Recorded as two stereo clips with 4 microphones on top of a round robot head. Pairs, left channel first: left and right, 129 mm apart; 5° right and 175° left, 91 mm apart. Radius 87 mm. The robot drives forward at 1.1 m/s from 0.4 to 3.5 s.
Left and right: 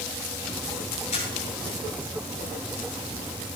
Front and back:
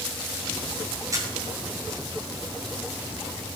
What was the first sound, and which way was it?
A camera shutter, 120° left.